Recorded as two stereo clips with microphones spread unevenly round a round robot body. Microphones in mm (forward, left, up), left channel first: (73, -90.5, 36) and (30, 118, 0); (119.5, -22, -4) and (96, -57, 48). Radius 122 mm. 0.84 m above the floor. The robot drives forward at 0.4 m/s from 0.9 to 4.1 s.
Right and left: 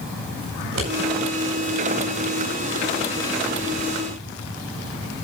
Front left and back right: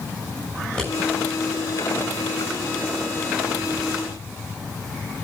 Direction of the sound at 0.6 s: 125° left.